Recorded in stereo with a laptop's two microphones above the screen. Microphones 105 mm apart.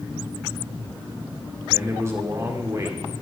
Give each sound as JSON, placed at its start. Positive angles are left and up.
{"t": 1.7, "sound": "a man speaking", "side_deg": -30, "distance_m": 2.0}